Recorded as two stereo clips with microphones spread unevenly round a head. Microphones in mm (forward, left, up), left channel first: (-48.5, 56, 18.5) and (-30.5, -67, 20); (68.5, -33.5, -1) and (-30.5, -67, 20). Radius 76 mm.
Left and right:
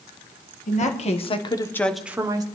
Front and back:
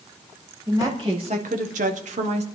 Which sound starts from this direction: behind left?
A woman speaking, at 0.7 s.